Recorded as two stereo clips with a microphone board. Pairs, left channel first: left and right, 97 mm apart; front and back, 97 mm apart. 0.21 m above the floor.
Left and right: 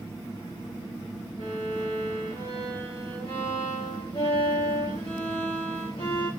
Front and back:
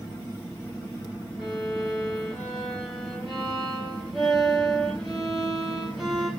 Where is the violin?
90° left, 5 m.